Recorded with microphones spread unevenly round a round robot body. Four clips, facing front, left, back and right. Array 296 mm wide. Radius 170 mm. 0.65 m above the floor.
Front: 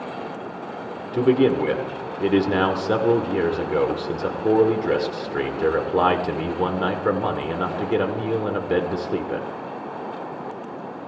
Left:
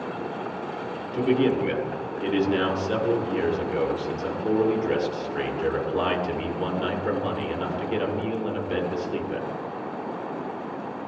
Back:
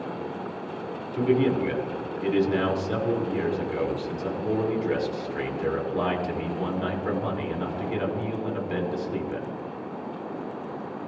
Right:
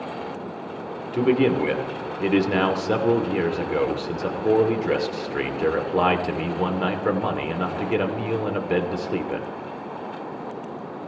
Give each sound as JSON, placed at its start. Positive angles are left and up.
{"t": 1.1, "sound": "a man speaking", "azimuth_deg": -25, "distance_m": 1.9}